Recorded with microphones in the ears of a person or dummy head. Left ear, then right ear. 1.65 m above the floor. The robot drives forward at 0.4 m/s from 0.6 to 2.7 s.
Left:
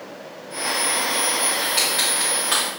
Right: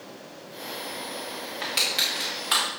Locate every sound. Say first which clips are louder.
1.6 s crushing: right 1 dB; 5° right (ahead or behind), 1.2 m